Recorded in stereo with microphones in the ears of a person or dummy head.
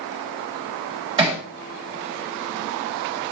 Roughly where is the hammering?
Right.